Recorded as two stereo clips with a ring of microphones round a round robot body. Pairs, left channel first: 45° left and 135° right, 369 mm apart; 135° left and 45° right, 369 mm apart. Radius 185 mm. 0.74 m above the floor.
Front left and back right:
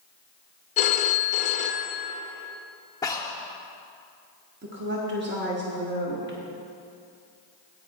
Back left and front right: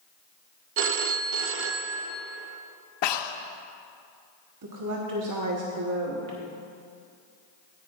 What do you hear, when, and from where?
0.8 s a phone ringing: 15° right, 0.5 m
3.0 s breathing: 125° left, 0.5 m
4.6 s a woman speaking: 75° right, 1.1 m